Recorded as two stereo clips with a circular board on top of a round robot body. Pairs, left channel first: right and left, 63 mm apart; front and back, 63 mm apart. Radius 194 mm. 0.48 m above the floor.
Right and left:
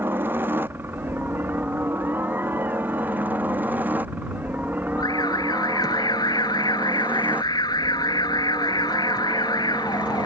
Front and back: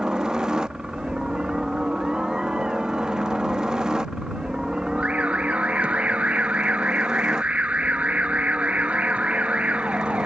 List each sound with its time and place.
0.0 s a helicopter: 110° left; by 10.3 s 120° left
5.0 s an alarm: 105° right